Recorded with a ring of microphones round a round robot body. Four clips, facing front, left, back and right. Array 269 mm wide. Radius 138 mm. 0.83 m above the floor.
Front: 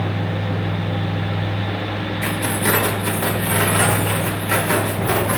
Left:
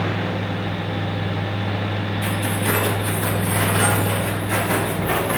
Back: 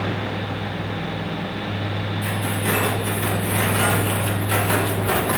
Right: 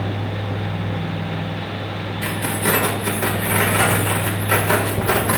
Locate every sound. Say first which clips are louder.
2.2 s keys jangling: right 3 dB, front 4 dB; 35° right, 2.5 m; by 5.4 s 90° right, 2.5 m